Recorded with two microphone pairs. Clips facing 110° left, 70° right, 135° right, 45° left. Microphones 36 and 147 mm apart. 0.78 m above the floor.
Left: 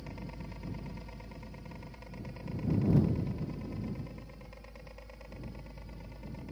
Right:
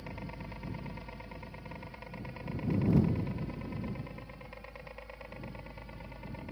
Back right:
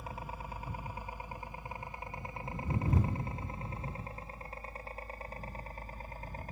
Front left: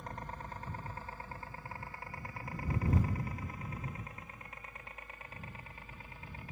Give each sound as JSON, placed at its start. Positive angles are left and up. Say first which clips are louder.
{"t": 0.0, "sound": "a helicopter", "louder": "right 1 dB, back right 1 dB", "azimuth_deg": -65}